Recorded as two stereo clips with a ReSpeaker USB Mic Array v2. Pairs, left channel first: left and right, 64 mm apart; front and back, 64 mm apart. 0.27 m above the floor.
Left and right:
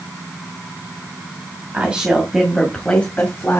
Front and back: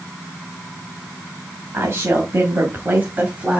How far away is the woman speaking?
About 1.9 m.